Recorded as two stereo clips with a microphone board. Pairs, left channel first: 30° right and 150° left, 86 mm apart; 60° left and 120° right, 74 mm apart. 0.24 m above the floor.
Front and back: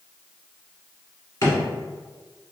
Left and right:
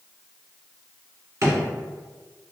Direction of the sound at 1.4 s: 80° right.